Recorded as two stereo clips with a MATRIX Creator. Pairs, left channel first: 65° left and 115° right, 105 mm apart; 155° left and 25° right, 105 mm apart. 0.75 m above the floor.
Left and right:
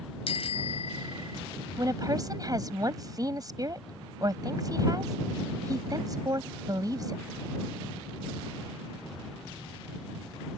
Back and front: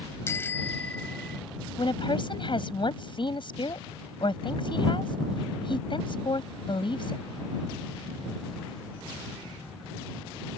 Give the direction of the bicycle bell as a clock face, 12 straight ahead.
9 o'clock.